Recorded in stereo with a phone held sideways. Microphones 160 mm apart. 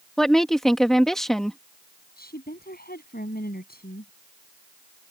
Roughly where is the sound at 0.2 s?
Centre.